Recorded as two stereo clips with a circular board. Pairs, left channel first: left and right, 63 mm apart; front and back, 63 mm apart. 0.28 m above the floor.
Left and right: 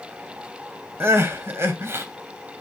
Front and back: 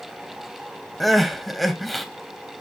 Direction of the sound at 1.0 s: 90° right.